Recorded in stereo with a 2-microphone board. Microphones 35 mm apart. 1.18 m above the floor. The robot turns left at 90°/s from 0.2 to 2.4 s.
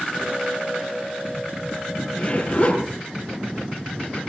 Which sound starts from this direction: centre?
A zipper, at 2.1 s.